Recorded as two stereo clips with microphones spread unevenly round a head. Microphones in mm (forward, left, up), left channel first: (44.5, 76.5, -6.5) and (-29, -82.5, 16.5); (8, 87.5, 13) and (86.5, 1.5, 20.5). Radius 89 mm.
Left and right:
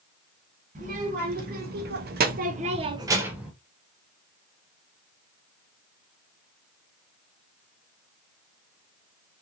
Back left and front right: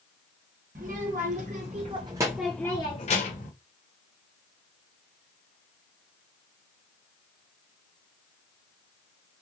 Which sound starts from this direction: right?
A child speaking, at 0.8 s.